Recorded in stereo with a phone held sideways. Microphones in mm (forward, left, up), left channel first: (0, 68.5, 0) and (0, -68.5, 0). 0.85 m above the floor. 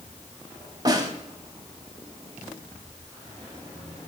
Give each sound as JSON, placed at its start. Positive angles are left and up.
{"t": 0.8, "sound": "a snare drum", "side_deg": -30, "distance_m": 0.7}